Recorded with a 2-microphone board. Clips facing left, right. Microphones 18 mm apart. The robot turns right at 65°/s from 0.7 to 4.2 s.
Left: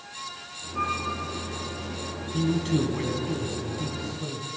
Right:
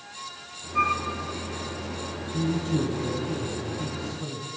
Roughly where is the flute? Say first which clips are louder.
Right 4 dB; right.